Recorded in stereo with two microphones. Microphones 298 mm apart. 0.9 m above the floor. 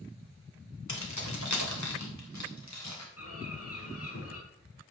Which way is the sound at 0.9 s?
85° left.